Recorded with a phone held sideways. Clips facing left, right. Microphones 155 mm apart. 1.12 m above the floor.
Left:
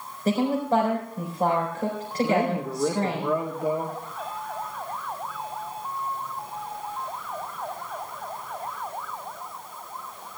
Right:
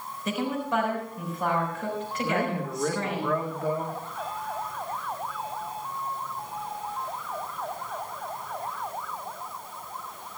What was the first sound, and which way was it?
A woman speaking, 45° left (ahead or behind).